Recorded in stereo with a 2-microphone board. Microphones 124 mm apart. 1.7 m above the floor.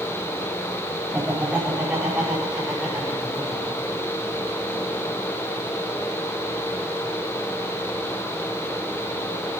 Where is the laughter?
10° right (ahead or behind), 9 m; by 5.2 s 10° left (ahead or behind), 6 m.